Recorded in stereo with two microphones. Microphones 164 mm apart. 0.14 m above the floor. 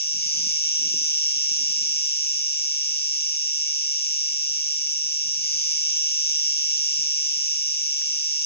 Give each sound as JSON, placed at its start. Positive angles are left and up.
{"t": 0.0, "sound": "an insect", "side_deg": 75, "distance_m": 1.0}